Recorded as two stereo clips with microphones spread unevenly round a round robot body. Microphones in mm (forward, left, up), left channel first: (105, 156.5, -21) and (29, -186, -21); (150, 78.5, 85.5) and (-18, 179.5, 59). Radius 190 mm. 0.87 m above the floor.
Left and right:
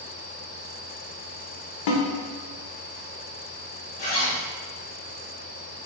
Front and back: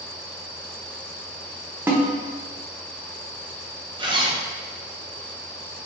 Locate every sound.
1.9 s a snare drum: 65° left, 0.9 m
4.0 s a zipper: 90° left, 1.0 m